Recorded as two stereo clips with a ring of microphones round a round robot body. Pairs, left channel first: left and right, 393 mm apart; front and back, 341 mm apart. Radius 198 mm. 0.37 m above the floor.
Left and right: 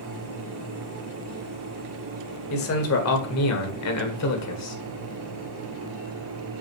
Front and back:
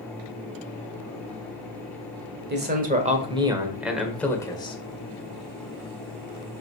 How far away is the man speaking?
About 1.7 m.